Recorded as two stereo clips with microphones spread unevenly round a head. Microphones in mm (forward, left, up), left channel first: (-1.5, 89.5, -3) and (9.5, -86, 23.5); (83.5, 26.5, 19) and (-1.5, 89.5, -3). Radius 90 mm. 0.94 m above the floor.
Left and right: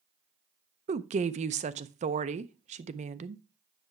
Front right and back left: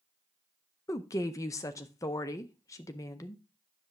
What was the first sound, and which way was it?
A woman speaking, 90° right.